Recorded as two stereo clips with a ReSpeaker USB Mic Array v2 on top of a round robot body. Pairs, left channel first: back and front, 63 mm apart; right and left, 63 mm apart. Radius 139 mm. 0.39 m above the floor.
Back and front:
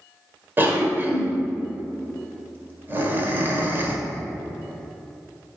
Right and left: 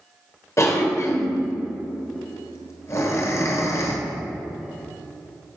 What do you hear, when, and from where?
0.6 s a cough: 55° right, 1.7 m